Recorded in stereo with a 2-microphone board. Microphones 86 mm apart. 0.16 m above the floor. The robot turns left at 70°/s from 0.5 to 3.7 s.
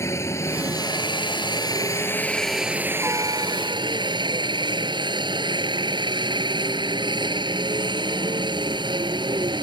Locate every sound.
0.0 s a helicopter: 140° left; by 9.6 s 85° right